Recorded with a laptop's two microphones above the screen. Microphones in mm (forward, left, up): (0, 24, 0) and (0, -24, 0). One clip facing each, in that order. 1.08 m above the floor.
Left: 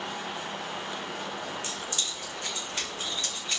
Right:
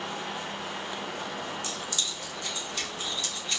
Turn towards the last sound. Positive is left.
turn(degrees=40)  # may be behind; listen again after turning